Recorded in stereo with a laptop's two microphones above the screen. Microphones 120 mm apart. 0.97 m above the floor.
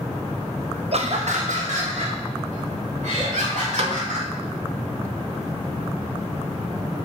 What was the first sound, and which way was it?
Laughter, 55° right (ahead or behind).